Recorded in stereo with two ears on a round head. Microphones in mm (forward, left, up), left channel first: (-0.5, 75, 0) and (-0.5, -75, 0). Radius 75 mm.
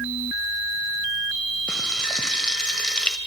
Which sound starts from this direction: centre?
Frying, at 1.7 s.